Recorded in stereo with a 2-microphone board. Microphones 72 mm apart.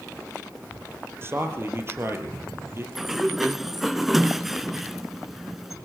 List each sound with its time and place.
1.2 s a man speaking: 35° right (ahead or behind), 3.5 m
3.0 s a sliding door: 5° right (ahead or behind), 0.7 m